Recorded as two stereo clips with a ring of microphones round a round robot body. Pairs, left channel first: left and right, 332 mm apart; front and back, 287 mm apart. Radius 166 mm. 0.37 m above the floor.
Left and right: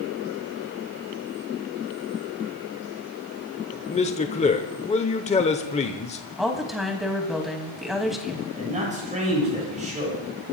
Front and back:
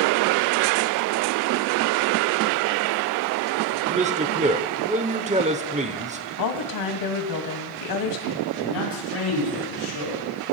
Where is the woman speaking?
Straight ahead, 2 m.